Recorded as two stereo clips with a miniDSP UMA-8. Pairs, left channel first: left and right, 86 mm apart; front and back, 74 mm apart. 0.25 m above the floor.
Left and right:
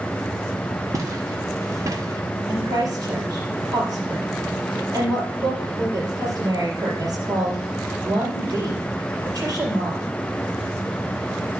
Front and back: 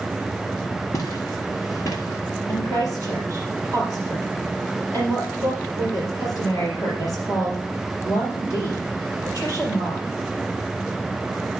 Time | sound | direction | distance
0.9 | footsteps | 40° right | 1.9 m
2.5 | a woman speaking | 45° right | 4.5 m